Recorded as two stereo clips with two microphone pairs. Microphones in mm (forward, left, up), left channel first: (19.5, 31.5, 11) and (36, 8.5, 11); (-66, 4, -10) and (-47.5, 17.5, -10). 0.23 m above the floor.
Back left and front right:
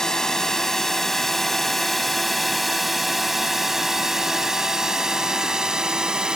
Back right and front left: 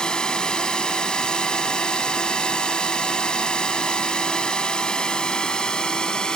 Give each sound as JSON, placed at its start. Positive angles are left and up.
{"t": 0.0, "sound": "a drone", "azimuth_deg": 180}